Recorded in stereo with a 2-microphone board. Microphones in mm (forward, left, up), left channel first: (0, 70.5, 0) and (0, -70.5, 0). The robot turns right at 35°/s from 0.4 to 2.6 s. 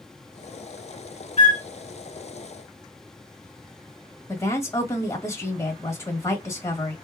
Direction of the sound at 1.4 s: 50° left (ahead or behind).